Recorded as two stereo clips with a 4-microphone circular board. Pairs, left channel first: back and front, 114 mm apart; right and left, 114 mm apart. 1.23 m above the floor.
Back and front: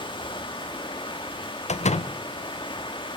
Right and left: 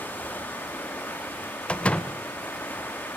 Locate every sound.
0.0 s running water: 160° right, 0.9 m
1.7 s a door slam: 170° right, 0.5 m